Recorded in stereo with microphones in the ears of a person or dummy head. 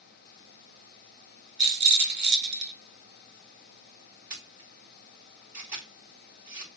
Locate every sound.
1.6 s a rattle: 55° right (ahead or behind), 1.1 m
4.3 s a camera shutter: 10° right (ahead or behind), 3 m